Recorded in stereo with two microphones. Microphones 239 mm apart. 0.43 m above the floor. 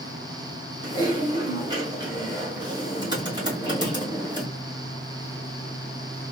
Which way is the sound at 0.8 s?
20° right (ahead or behind).